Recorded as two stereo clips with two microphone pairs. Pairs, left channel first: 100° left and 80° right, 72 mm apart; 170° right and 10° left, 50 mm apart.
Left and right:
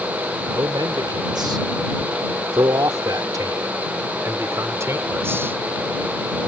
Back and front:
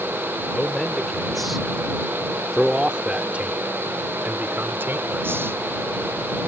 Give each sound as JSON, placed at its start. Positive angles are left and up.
{"t": 0.5, "sound": "a man speaking", "azimuth_deg": -90}